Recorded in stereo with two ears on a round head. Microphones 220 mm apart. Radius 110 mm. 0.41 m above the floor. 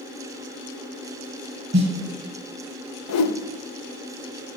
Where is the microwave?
No microwave in this recording.